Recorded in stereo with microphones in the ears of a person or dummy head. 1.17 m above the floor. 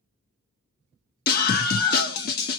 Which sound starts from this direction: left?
A scream, at 1.3 s.